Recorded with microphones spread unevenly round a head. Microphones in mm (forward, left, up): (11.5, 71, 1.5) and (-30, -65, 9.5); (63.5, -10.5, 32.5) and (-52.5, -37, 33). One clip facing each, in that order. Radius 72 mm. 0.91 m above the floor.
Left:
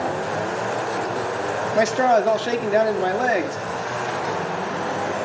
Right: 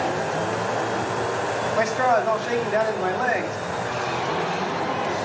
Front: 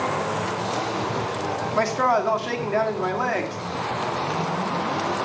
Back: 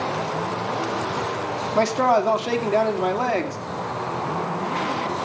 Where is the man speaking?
125° left, 2.5 m.